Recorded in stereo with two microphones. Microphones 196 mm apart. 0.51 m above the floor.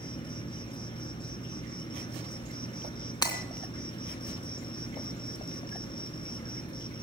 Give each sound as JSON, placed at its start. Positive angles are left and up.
{"t": 0.0, "sound": "an insect", "side_deg": 25, "distance_m": 1.8}
{"t": 3.2, "sound": "breaking glass", "side_deg": 20, "distance_m": 3.0}